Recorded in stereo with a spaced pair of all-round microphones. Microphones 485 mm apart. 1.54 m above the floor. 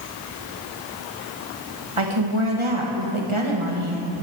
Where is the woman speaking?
75° right (ahead or behind), 2.5 m.